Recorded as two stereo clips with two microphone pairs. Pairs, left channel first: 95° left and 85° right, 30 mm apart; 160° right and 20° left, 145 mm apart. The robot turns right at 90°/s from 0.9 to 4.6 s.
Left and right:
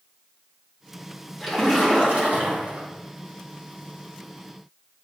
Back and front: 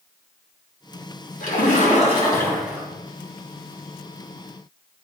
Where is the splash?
Straight behind, 3 m; by 2.9 s 45° right, 3 m.